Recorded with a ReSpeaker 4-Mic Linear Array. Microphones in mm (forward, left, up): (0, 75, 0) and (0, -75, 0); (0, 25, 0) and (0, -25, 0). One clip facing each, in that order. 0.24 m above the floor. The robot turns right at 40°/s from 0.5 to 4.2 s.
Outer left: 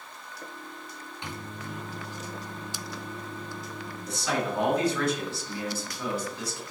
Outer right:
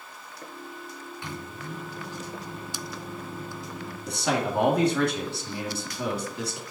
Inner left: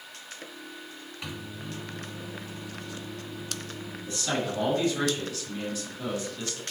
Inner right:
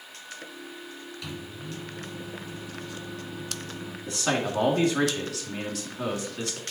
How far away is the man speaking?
About 2.5 m.